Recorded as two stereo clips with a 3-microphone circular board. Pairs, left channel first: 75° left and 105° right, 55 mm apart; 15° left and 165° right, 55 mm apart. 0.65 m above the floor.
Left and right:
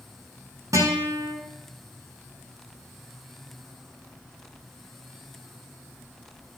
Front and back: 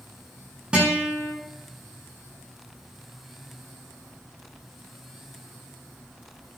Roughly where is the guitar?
Right.